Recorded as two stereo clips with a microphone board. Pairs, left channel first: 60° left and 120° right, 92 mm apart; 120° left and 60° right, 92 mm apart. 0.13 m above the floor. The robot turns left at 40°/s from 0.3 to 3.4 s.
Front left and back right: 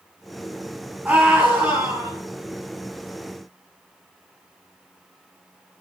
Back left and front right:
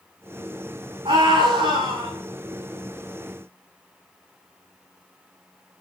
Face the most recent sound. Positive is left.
turn(degrees=-135)